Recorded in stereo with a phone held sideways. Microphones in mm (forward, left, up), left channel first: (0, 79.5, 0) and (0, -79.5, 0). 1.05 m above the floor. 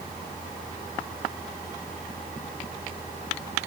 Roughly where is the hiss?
I don't hear a hiss.